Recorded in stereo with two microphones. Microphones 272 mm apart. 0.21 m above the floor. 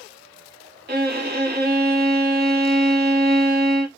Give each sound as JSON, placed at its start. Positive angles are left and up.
{"t": 0.9, "sound": "a violin", "side_deg": -35, "distance_m": 0.6}